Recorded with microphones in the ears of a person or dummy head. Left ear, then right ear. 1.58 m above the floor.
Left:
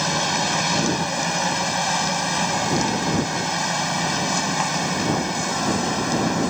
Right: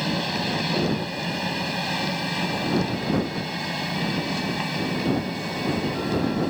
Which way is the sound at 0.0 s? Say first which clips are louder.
Left 5 dB; 45° left (ahead or behind).